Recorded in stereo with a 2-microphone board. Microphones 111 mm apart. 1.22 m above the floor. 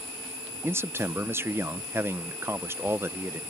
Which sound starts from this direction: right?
A man speaking, at 0.6 s.